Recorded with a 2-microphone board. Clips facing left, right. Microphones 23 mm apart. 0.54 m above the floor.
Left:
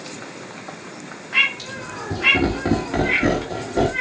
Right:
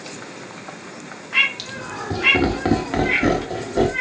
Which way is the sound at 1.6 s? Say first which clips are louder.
Right 1 dB; 45° right (ahead or behind).